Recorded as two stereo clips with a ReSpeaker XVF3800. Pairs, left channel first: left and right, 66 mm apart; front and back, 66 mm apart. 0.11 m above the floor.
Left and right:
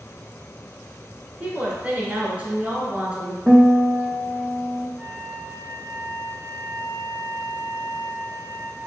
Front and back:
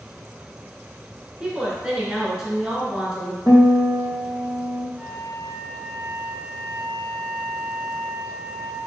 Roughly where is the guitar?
Ahead right.